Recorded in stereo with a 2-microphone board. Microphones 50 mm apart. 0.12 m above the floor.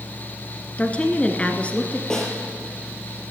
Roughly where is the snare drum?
Centre.